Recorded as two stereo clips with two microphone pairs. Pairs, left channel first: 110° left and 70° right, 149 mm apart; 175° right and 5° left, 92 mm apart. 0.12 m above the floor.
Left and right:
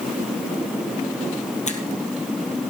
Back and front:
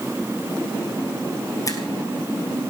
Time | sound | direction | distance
1.7 | a finger snap | 135° left | 1.8 m